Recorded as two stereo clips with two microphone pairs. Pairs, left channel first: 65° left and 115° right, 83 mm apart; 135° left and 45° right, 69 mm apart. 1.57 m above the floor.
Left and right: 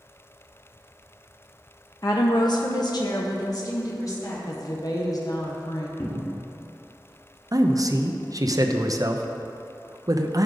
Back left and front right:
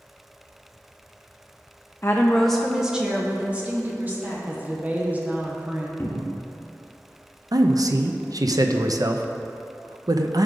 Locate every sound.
2.0 s a woman speaking: 100° left, 0.6 m; by 4.4 s 15° left, 2 m
4.5 s a woman speaking: 25° left, 1.0 m
6.0 s a cupboard door: 100° left, 1.3 m
7.5 s a man speaking: 70° right, 0.7 m